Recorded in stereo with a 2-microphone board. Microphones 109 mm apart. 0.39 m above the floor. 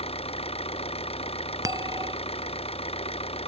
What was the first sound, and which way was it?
An engine running, 70° left (ahead or behind).